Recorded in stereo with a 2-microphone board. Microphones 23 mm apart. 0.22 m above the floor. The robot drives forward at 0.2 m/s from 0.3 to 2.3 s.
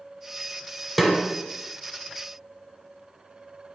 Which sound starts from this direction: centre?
A snare drum, at 1.0 s.